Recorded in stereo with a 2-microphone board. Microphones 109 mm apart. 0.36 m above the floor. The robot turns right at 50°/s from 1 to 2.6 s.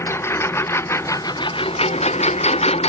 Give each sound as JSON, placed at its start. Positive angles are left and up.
{"t": 0.0, "sound": "a lawn mower", "side_deg": 25}